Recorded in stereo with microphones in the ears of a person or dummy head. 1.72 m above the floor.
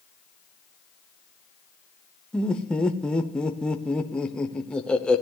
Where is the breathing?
I don't hear breathing.